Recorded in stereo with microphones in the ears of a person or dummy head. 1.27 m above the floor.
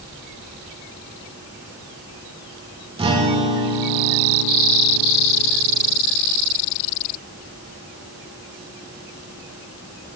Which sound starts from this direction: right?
A guitar, at 3.0 s.